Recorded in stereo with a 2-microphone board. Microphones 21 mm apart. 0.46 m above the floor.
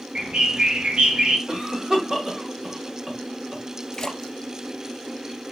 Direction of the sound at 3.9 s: 30° left (ahead or behind).